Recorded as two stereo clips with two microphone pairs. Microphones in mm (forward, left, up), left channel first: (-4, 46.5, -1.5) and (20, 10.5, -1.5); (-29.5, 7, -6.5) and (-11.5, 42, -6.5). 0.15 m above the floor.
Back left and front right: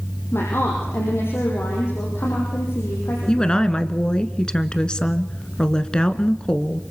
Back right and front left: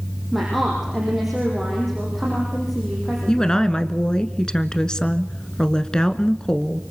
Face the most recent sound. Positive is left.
turn(degrees=-175)